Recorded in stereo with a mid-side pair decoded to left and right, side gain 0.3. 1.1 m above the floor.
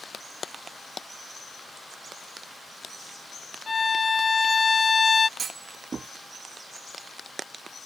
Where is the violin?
40° left.